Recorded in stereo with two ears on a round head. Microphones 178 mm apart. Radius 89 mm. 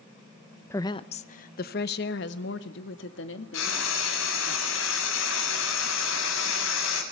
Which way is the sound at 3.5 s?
85° left.